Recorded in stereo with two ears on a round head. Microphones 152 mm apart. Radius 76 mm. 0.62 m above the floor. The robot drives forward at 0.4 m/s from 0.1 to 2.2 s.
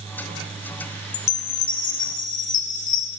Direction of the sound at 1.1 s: 65° left (ahead or behind).